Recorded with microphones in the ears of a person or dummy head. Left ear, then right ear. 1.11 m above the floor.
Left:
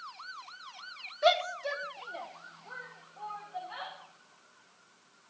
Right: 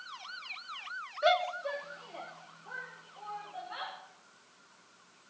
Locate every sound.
1.2 s a shout: 15° left (ahead or behind), 0.8 m; by 3.9 s 10° left (ahead or behind), 3 m